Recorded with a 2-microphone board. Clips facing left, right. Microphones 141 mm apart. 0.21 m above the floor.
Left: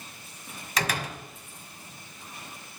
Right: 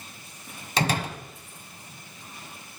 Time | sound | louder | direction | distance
0.8 | a door slam | right 4 dB | 30° right (ahead or behind) | 1.2 m